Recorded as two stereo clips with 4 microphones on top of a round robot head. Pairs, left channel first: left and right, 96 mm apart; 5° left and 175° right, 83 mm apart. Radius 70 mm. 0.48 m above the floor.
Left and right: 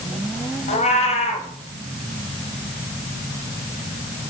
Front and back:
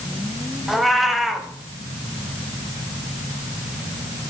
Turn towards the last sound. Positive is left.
turn(degrees=100)